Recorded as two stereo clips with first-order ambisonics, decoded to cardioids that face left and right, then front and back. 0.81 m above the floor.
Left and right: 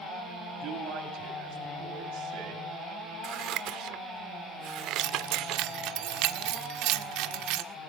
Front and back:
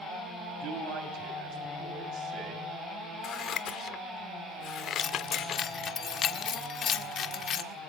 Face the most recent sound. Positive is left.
turn(degrees=-60)